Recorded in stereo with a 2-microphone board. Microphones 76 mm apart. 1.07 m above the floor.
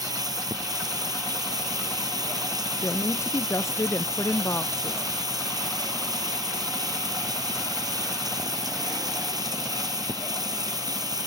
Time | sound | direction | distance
0.0 | running water | 55° right (ahead or behind) | ?
2.8 | a woman speaking | 35° left (ahead or behind) | ?